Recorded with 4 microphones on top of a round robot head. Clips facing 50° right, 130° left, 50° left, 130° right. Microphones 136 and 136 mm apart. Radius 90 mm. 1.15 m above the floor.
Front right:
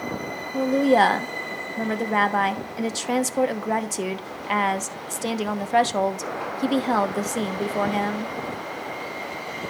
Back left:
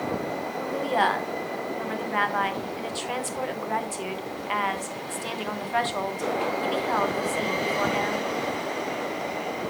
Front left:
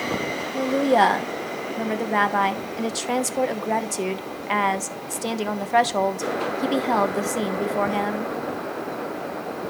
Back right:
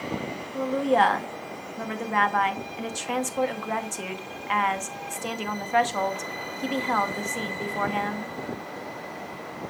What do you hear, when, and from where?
0.5 s a woman speaking: 5° right, 1.1 m